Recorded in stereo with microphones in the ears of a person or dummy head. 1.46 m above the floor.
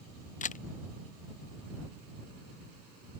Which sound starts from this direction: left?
A camera shutter, at 0.4 s.